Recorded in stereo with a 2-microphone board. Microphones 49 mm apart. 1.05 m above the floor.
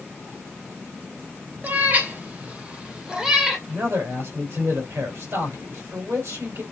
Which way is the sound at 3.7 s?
50° right (ahead or behind).